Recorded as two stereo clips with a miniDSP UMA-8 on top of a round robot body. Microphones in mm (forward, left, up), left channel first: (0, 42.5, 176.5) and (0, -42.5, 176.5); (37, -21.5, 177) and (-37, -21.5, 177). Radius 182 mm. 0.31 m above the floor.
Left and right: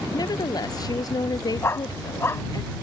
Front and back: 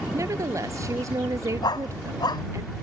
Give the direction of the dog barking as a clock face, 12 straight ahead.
11 o'clock.